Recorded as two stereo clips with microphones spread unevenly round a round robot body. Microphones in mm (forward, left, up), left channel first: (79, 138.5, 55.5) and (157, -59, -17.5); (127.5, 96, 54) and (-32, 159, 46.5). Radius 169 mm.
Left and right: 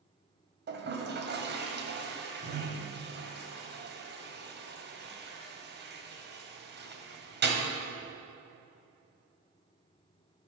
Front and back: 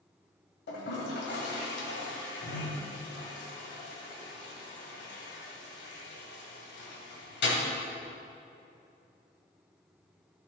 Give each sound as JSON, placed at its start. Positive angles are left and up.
{"t": 0.7, "sound": "a toilet flushing", "azimuth_deg": -20, "distance_m": 1.6}